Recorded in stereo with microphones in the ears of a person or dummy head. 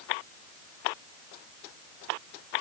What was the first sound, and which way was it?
Only background noise.